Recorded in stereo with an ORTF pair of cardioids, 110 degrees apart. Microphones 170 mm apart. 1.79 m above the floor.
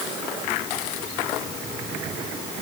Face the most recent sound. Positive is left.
No sound to turn to.